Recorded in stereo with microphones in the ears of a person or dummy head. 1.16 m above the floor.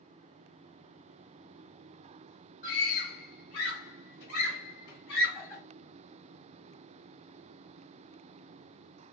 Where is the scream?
50° left (ahead or behind), 0.9 m.